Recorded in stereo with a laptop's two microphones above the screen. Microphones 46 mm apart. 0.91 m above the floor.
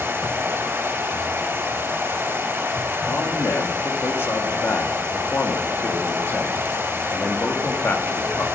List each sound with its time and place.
0.0 s running water: 65° right (ahead or behind), 2.5 m
3.1 s a man speaking: 60° left (ahead or behind), 1.6 m